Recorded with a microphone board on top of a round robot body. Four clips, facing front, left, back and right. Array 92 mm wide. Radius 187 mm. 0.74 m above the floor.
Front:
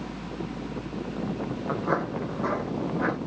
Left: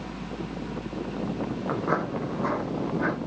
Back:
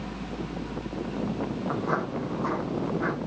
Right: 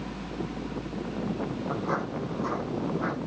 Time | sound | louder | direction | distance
1.7 | footsteps | left 5 dB, front 3 dB | 65° left | 0.7 m